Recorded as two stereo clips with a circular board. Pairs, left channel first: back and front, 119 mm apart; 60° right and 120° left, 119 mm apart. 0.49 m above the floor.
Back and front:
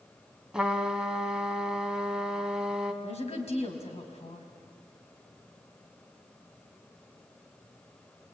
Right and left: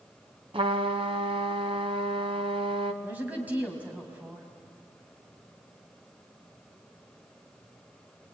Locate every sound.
0.5 s a trumpet: 85° left, 1.6 m
3.0 s a woman speaking: 165° right, 4 m